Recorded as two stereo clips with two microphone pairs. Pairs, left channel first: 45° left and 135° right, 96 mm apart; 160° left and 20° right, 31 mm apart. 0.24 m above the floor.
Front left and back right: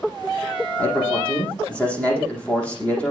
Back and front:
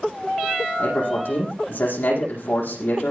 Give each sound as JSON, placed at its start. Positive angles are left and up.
{"t": 0.8, "sound": "a man speaking", "azimuth_deg": 125, "distance_m": 10.0}